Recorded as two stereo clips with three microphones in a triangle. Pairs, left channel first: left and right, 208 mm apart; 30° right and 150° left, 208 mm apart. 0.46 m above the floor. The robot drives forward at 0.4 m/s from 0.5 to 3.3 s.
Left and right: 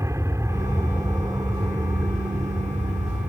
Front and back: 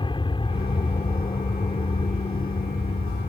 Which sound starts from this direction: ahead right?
An aircraft, at 0.0 s.